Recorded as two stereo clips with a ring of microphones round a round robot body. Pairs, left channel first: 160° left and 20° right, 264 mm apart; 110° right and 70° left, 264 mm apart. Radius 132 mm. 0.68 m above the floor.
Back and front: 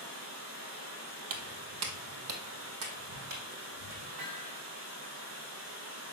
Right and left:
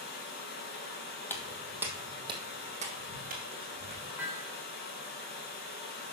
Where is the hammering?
15° right, 2.5 m.